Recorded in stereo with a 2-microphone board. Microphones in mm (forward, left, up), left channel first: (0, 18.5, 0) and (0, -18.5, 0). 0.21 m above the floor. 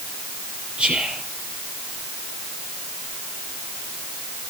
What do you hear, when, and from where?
0.8 s whispering: 30° right (ahead or behind), 5 m